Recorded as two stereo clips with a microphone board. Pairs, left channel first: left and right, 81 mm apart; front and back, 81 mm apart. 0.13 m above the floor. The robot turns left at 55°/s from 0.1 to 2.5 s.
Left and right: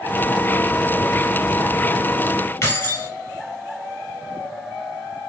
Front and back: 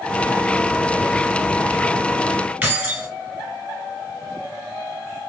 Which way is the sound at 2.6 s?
120° left.